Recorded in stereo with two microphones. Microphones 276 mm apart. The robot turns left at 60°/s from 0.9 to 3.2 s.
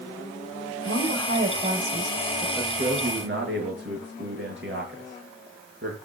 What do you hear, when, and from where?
0.8 s a woman speaking: 95° right, 1.5 m; by 2.5 s 170° left, 1.5 m
2.6 s a man speaking: 10° right, 5.5 m; by 6.0 s 50° right, 5.5 m